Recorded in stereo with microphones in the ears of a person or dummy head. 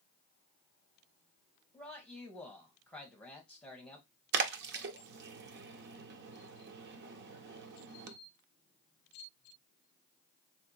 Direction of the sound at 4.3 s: 60° right (ahead or behind).